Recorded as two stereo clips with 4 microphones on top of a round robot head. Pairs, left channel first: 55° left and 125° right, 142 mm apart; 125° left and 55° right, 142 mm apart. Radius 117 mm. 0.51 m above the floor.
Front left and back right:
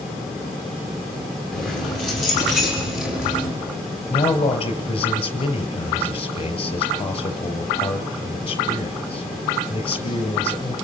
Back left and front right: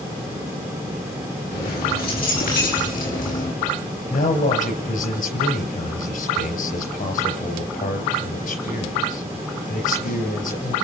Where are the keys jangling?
140° left, 8 m; by 3.5 s 150° left, 6.5 m.